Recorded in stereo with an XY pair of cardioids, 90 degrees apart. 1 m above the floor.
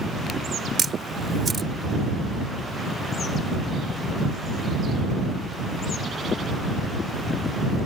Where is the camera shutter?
40° right.